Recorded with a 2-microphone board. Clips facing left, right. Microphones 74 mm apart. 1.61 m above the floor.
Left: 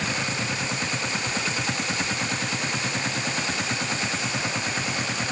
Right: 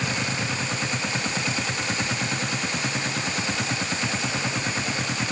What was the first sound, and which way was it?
Only background noise.